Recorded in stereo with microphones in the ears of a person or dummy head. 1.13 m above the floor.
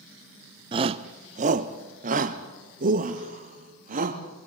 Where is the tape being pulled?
I don't hear tape being pulled.